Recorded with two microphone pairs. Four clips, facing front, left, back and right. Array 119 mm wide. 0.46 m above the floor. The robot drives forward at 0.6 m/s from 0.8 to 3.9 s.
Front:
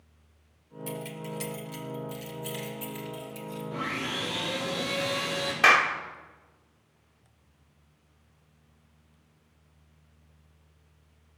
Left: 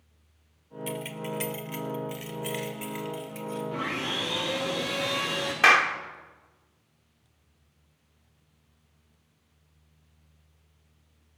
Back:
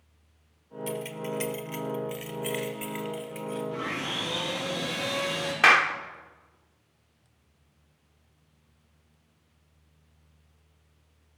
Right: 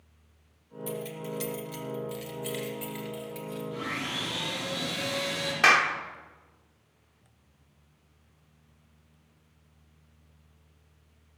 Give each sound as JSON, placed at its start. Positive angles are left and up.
{"t": 0.9, "sound": "keys jangling", "azimuth_deg": 120, "distance_m": 1.0}
{"t": 3.7, "sound": "sawing", "azimuth_deg": 135, "distance_m": 6.0}
{"t": 5.6, "sound": "a clap", "azimuth_deg": 160, "distance_m": 1.0}